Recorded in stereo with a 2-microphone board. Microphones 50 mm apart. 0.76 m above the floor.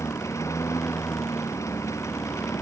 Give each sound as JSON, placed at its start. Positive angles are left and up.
{"t": 0.0, "sound": "a lawn mower", "side_deg": 80}